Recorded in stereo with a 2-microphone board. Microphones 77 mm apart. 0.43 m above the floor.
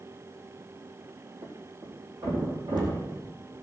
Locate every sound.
1.4 s a thud: 85° right, 4.5 m